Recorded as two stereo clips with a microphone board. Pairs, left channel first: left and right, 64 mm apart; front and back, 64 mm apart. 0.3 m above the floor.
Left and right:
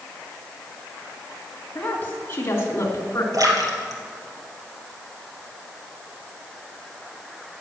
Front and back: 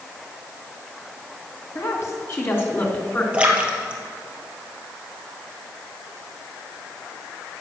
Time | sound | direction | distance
1.8 | a woman speaking | 30° left | 2.5 m
3.3 | a splash | 110° right | 2 m